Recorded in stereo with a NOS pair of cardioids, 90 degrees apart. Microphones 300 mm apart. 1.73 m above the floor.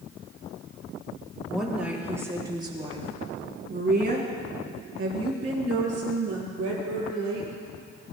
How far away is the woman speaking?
About 4.5 m.